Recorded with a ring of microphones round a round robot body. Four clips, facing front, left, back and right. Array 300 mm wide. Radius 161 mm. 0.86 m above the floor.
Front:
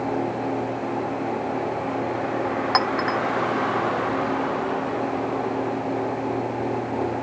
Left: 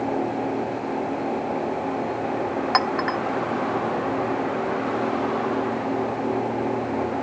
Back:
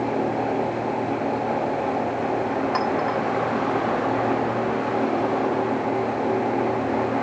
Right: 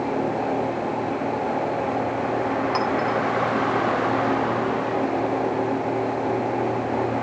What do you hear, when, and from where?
2.7 s a clink: 40° left, 0.8 m